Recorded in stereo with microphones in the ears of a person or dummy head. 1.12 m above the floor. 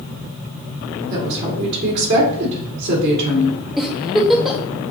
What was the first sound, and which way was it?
A woman speaking, 60° right (ahead or behind).